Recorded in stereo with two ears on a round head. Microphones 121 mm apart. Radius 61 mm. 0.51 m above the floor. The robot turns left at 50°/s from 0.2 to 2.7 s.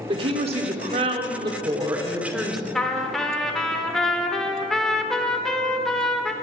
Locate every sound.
0.1 s a woman speaking: 60° right, 1.4 m; by 2.6 s 175° left, 1.4 m
2.8 s a trumpet: 5° left (ahead or behind), 1.2 m